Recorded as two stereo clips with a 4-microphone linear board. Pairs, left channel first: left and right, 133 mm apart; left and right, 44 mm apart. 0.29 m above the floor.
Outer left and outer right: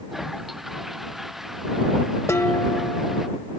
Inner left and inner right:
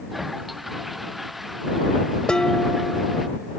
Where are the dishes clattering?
20° left (ahead or behind).